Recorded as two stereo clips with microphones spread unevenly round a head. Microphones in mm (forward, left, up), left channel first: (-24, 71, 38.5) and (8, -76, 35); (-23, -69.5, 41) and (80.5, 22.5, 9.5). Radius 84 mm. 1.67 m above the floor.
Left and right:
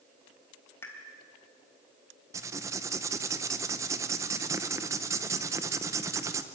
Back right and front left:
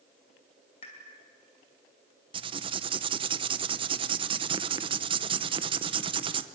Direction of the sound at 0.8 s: 175° left.